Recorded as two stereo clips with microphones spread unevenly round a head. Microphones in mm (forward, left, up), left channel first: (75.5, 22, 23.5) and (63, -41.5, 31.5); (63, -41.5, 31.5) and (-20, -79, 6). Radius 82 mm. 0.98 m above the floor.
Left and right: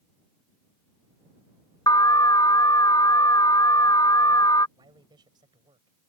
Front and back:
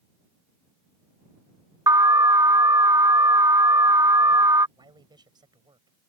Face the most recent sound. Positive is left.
turn(degrees=-115)